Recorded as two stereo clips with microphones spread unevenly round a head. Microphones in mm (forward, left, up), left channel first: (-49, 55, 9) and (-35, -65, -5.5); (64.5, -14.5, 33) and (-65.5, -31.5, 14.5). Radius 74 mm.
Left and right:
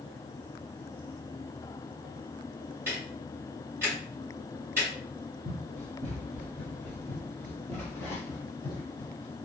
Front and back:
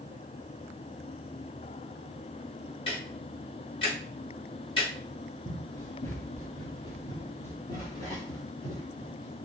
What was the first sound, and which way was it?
Ticking, 10° right.